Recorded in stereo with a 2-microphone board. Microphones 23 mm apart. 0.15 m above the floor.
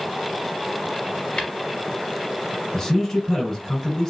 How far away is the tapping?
About 2.5 m.